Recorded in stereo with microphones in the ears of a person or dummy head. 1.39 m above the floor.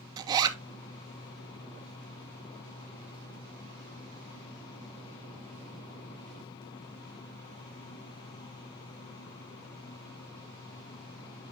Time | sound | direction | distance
0.2 | a zipper | 25° right (ahead or behind) | 0.8 m